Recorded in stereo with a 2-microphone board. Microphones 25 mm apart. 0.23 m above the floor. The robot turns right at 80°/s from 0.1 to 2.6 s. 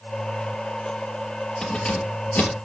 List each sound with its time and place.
1.6 s keys jangling: 20° left (ahead or behind), 3 m; by 2.6 s 75° left (ahead or behind), 3 m